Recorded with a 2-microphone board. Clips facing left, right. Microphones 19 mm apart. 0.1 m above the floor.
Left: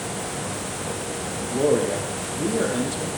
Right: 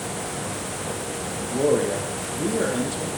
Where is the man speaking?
20° left (ahead or behind), 4 m.